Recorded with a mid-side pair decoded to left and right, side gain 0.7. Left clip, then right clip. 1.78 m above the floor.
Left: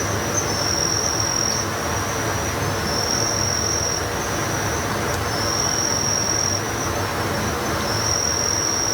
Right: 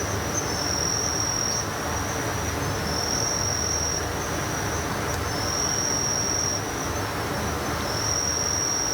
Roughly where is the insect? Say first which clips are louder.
Left 5 dB; ahead.